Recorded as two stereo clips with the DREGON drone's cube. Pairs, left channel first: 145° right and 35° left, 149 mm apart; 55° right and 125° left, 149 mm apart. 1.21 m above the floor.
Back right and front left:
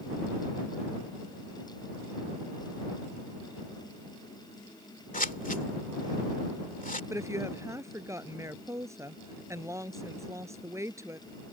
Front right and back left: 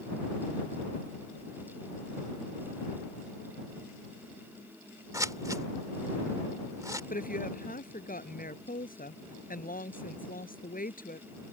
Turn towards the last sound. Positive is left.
turn(degrees=-35)